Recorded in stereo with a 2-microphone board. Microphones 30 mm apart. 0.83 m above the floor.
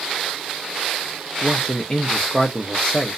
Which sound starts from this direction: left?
A man speaking, at 1.4 s.